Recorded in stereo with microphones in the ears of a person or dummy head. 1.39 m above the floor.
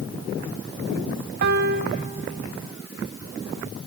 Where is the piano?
60° right (ahead or behind), 1.2 m.